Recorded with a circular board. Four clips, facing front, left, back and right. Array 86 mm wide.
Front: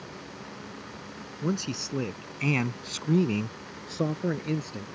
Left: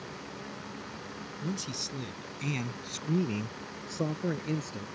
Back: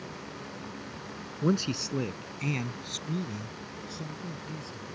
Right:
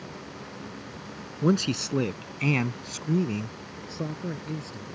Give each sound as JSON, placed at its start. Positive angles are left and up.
{"t": 1.4, "sound": "a man speaking", "azimuth_deg": -100}